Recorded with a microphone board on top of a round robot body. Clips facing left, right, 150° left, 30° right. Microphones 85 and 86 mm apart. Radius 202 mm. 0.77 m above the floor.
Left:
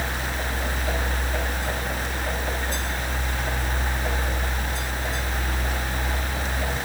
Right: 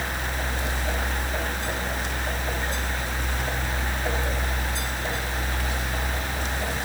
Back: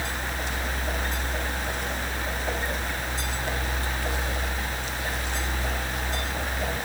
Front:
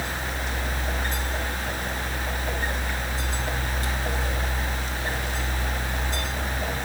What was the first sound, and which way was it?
Only background noise.